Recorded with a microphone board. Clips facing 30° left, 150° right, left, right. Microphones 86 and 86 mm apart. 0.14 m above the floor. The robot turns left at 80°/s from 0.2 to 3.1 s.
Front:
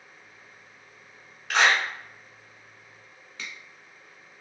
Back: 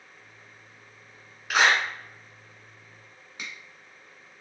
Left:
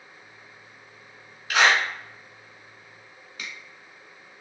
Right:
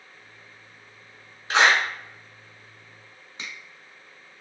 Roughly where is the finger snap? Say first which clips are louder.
Even, even; right.